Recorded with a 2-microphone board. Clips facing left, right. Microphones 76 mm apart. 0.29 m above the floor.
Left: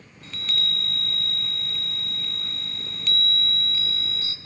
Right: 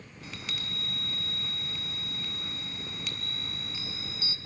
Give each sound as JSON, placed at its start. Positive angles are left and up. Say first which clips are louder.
{"t": 0.2, "sound": "a chime", "louder": "left 7 dB", "side_deg": -5, "distance_m": 2.0}